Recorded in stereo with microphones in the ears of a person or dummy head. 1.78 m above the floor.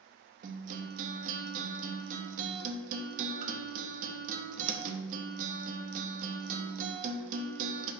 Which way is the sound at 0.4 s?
50° right (ahead or behind).